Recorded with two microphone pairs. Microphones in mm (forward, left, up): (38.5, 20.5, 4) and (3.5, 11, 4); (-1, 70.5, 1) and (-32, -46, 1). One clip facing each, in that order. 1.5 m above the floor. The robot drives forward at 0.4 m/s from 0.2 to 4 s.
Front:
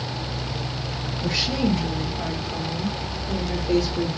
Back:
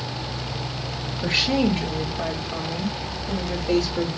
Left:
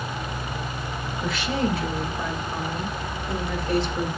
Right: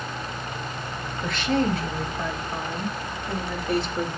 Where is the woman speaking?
160° left, 2 m; by 4.1 s 165° left, 3 m.